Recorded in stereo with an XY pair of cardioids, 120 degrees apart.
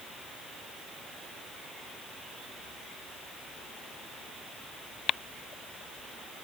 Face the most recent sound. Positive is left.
No sound to turn to.